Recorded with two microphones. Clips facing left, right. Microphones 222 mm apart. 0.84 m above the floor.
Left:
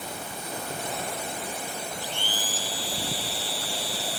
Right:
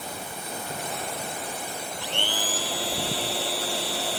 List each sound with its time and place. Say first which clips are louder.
2.0 s a blender: right 3 dB; 75° right (ahead or behind)